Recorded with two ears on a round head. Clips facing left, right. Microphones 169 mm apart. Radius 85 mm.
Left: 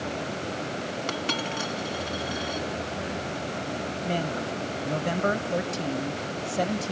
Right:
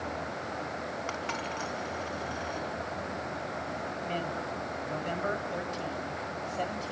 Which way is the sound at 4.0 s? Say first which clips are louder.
Left 7 dB; 60° left (ahead or behind).